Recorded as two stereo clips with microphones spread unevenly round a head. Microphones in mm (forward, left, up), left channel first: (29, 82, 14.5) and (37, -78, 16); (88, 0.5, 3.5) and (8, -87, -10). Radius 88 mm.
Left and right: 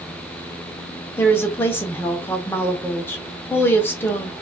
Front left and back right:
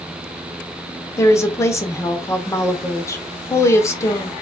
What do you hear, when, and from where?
1.2 s a woman speaking: 25° left, 0.6 m